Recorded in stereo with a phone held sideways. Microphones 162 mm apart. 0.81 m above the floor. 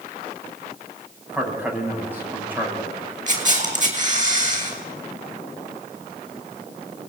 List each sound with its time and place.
1.3 s a man speaking: 10° right (ahead or behind), 7 m
3.3 s a camera shutter: 50° right (ahead or behind), 5.5 m